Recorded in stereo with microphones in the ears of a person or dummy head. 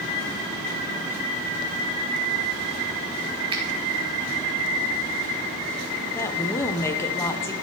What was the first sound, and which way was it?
A finger snap, 25° right (ahead or behind).